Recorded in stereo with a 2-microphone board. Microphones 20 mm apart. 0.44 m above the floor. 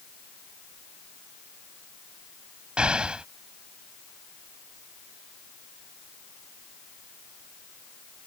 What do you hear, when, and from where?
2.8 s an explosion: 60° right (ahead or behind)